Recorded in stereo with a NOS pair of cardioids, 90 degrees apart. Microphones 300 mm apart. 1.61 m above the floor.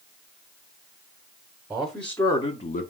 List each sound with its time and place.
1.7 s a man speaking: 5° right, 1.1 m; by 2.9 s 35° left, 0.7 m